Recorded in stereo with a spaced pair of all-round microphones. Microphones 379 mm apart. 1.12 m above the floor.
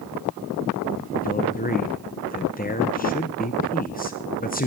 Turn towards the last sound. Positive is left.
turn(degrees=20)  # may be behind; listen again after turning